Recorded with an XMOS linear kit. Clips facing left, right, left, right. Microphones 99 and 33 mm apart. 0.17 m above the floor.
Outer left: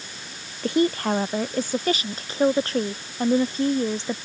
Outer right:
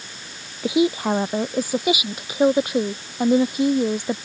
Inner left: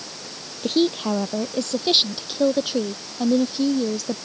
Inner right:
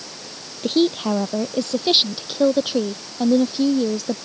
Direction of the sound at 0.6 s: 5° right (ahead or behind).